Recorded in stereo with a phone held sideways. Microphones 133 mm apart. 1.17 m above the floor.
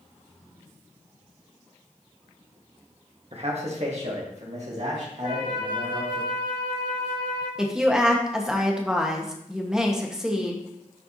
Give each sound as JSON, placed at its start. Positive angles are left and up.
{"t": 3.3, "sound": "a man speaking", "side_deg": -50, "distance_m": 1.3}
{"t": 5.2, "sound": "a flute", "side_deg": -80, "distance_m": 2.5}
{"t": 7.6, "sound": "a woman speaking", "side_deg": -5, "distance_m": 1.2}